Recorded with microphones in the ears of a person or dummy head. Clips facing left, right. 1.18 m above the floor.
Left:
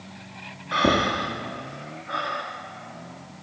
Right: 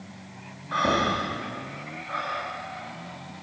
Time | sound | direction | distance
0.7 | breathing | 35° left (ahead or behind) | 0.9 m